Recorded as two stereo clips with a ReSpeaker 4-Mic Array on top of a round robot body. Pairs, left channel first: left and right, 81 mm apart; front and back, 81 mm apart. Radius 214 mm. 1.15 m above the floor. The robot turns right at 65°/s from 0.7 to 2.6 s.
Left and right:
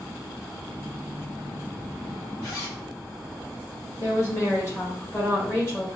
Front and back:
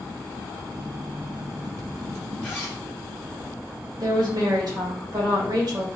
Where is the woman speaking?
145° left, 1.5 m.